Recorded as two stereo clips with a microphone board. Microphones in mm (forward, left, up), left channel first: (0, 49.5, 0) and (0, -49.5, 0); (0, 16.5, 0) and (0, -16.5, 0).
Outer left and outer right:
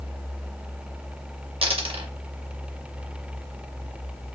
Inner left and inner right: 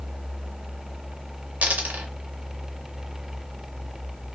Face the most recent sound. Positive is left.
turn(degrees=-70)  # may be behind; listen again after turning